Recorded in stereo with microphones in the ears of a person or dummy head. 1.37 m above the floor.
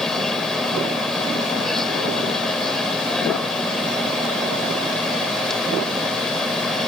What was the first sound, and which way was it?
A machine running, 5° left (ahead or behind).